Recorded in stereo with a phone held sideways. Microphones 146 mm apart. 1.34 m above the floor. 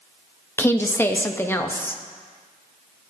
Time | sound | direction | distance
0.6 | a woman speaking | 15° left (ahead or behind) | 0.5 m